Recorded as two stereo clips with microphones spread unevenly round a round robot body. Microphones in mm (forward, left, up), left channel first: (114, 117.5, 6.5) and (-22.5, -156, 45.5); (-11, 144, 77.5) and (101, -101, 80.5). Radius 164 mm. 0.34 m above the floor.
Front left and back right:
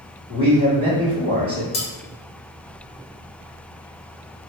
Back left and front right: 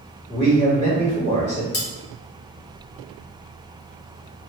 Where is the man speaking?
170° left, 1.8 m.